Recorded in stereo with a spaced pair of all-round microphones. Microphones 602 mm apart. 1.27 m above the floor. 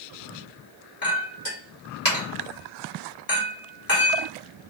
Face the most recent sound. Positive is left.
turn(degrees=35)  # may be behind; listen again after turning